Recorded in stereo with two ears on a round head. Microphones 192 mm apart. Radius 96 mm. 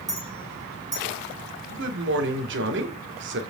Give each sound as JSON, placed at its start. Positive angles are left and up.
{"t": 0.1, "sound": "a clink", "side_deg": -15, "distance_m": 8.5}
{"t": 1.7, "sound": "a man speaking", "side_deg": -60, "distance_m": 2.5}